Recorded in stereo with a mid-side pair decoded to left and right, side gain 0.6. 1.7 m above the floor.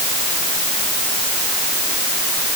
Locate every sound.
Only background noise.